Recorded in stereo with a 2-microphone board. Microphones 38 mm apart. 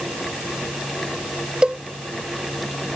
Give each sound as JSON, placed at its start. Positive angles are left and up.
{"t": 1.6, "sound": "a cowbell", "side_deg": -25}